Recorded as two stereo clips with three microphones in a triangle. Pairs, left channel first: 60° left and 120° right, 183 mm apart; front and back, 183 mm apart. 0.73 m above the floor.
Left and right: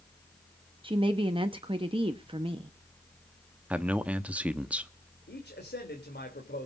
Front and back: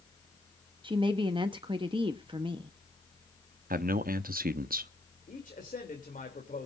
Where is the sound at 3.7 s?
160° left, 0.8 m.